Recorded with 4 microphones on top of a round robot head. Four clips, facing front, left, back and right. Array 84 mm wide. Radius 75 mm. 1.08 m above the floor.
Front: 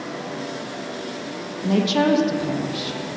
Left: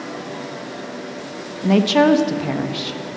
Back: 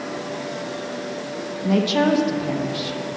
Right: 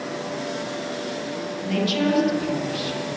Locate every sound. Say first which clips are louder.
1.6 s a woman speaking: left 9 dB, even; 85° left, 1.4 m